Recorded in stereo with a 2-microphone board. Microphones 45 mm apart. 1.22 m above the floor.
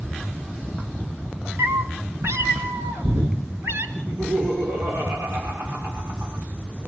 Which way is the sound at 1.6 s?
60° right (ahead or behind).